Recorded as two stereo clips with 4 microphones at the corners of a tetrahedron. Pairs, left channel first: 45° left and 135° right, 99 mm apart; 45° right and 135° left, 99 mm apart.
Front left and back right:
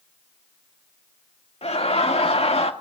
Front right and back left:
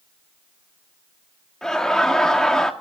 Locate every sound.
1.6 s laughter: 40° left, 1.7 m